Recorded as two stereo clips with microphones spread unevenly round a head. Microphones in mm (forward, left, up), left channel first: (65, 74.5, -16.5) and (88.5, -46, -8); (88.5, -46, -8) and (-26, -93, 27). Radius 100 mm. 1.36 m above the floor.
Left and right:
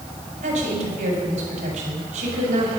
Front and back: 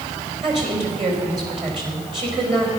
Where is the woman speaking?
115° right, 5.5 m.